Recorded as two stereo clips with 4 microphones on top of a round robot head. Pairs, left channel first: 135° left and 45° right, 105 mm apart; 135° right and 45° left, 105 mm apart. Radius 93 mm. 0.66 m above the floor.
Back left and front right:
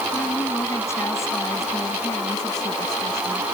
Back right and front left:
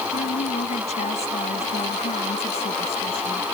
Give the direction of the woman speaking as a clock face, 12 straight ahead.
5 o'clock.